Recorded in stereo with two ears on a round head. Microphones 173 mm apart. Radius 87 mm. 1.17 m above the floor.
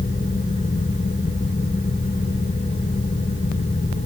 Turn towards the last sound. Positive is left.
No sound to turn to.